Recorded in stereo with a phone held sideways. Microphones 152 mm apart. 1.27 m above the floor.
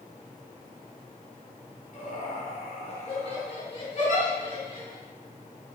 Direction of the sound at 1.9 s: 55° left (ahead or behind).